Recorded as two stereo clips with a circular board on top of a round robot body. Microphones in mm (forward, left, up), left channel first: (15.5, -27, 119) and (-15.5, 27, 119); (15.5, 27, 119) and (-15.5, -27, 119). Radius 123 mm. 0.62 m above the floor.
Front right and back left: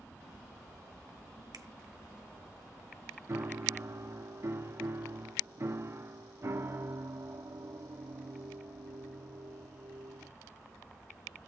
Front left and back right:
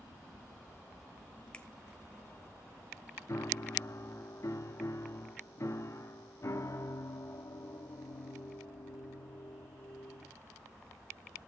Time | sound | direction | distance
1.5 | a finger snap | 130° left | 1.3 m
3.3 | a piano | 85° left | 1.4 m